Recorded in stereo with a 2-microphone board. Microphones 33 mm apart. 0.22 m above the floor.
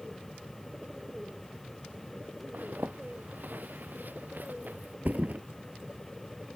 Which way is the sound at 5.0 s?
55° right (ahead or behind).